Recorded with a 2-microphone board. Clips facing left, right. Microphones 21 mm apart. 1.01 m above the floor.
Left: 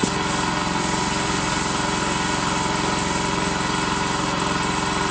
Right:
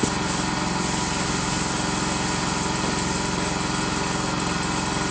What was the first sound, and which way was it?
An engine running, 60° left (ahead or behind).